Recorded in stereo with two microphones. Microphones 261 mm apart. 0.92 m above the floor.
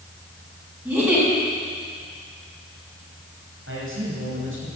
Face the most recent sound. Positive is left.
turn(degrees=-50)  # may be behind; listen again after turning